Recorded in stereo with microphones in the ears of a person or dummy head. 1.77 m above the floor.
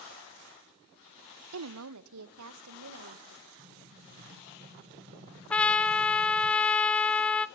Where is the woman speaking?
75° right (ahead or behind), 0.6 m; by 3.5 s 80° right, 3 m.